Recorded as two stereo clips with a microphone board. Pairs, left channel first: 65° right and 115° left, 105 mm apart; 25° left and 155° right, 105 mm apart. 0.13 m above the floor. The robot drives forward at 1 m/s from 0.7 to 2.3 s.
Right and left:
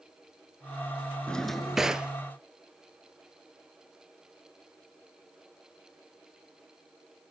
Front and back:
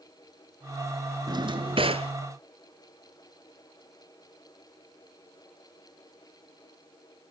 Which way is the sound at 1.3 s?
140° right.